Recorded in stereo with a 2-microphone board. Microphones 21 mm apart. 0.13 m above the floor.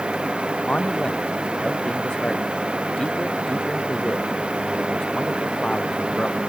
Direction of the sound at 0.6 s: 40° left (ahead or behind).